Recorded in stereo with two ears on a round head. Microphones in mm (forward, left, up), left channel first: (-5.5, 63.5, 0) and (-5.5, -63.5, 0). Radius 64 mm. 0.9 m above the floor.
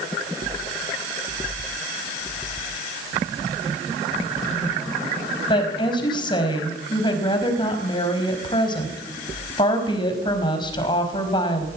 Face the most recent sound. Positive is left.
turn(degrees=35)  # may be behind; listen again after turning